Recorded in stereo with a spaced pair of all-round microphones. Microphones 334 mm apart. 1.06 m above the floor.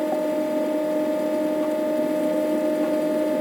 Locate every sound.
0.0 s a fan: centre (ahead or behind)